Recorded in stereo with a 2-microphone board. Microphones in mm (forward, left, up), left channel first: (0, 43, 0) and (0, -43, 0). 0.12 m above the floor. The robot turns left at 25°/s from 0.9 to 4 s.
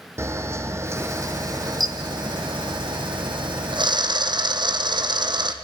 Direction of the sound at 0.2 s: 35° right (ahead or behind).